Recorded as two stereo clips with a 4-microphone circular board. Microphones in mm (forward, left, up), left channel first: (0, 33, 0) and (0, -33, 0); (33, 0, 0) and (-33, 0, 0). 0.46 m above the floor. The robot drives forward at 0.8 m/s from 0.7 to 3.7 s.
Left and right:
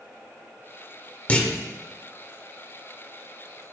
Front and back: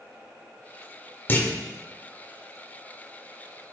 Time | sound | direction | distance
1.3 | a clunk | 35° left | 1.8 m